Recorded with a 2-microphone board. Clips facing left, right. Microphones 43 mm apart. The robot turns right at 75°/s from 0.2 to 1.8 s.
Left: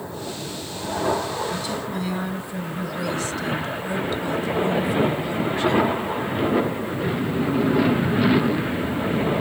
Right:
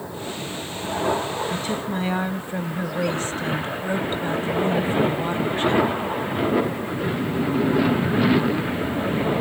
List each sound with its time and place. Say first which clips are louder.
1.5 s a woman speaking: right 1 dB; 45° right (ahead or behind), 1.2 m; by 5.9 s 35° right (ahead or behind), 1.2 m